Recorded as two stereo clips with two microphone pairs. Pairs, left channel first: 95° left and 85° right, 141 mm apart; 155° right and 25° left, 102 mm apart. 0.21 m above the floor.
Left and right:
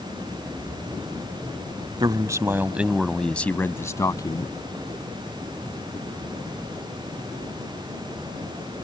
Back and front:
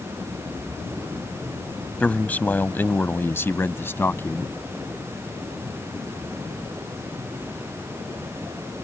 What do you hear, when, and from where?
2.0 s a man speaking: 90° right; by 4.5 s 145° left